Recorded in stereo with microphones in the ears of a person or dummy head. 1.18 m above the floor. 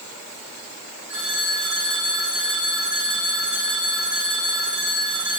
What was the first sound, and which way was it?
A phone ringing, 75° right (ahead or behind).